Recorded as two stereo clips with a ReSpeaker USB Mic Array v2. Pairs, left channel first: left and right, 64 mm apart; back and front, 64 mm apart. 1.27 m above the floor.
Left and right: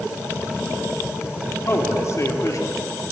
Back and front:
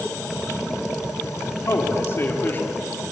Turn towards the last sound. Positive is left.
turn(degrees=115)